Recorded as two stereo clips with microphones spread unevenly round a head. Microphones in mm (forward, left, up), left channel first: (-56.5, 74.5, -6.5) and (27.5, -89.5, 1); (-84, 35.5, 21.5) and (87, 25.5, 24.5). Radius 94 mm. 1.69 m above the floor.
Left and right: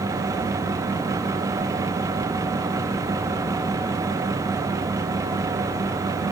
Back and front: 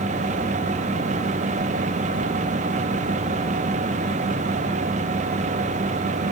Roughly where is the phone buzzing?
No phone buzzing in this recording.